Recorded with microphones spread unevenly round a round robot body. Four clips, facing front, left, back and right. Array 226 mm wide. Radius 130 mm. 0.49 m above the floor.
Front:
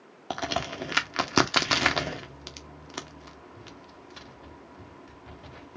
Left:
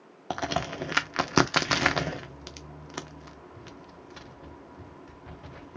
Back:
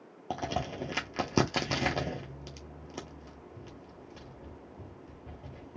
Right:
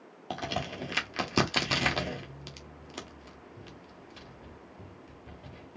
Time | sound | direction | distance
0.3 | a crack | 35° left | 1.0 m